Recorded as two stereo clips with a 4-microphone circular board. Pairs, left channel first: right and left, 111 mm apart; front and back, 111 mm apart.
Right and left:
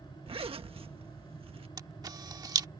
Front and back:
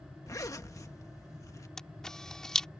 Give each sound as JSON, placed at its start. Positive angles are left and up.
{"t": 0.3, "sound": "a zipper", "azimuth_deg": 60}
{"t": 1.8, "sound": "a camera shutter", "azimuth_deg": 80}